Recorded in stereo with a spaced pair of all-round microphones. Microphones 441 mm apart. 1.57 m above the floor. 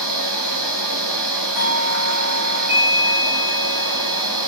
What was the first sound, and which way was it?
A machine running, 65° right (ahead or behind).